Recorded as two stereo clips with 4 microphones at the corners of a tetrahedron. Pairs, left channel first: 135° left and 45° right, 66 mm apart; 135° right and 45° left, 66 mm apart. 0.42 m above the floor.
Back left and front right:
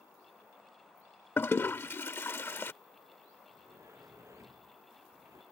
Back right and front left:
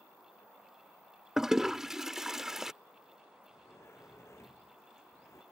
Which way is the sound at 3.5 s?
90° right.